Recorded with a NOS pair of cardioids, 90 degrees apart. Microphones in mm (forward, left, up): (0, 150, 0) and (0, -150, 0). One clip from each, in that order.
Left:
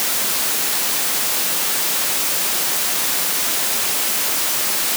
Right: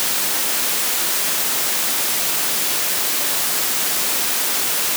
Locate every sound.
Only background noise.